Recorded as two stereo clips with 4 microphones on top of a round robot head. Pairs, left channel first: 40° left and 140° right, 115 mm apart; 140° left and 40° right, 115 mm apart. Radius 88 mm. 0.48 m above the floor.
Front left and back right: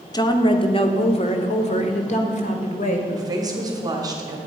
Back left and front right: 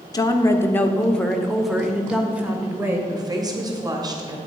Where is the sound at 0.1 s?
90° left, 1.1 m; by 3.0 s 30° left, 2.0 m.